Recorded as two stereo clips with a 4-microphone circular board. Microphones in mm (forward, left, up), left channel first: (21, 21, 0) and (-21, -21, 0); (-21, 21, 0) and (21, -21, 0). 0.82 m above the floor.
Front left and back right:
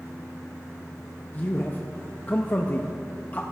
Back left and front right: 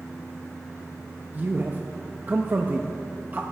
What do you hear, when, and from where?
1.3 s a man speaking: straight ahead, 0.6 m